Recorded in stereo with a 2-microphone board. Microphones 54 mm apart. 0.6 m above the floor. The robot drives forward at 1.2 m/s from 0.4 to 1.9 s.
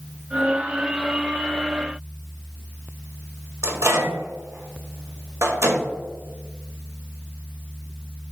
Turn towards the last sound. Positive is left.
turn(degrees=-65)  # may be behind; listen again after turning